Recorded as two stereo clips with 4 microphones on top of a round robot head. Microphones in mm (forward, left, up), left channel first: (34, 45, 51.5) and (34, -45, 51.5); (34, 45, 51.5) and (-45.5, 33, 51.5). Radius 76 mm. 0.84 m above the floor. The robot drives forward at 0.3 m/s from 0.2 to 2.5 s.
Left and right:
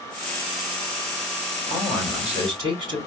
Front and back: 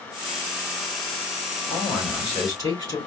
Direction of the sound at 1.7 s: 130° right.